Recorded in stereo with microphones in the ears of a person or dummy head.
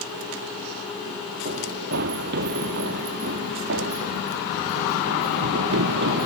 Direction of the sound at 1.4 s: 60° right (ahead or behind).